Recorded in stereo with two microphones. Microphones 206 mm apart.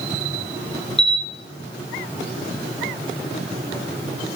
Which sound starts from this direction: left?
A camera shutter, at 1.0 s.